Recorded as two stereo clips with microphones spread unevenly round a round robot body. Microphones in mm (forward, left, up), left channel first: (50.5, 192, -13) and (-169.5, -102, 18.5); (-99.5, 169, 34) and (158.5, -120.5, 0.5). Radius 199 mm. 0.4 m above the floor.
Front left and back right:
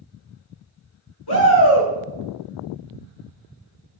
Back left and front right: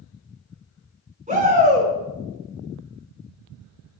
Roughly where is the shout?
Ahead left.